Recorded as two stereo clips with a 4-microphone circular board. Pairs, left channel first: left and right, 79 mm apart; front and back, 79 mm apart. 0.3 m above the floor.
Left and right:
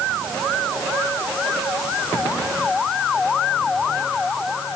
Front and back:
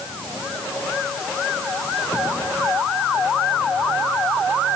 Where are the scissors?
I don't hear scissors.